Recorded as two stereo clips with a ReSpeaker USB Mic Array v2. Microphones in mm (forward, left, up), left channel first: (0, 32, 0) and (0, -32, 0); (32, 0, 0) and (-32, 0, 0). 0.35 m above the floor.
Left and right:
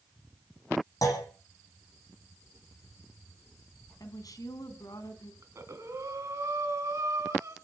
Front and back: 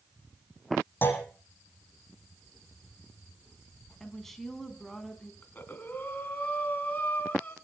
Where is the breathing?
55° right, 3.5 m.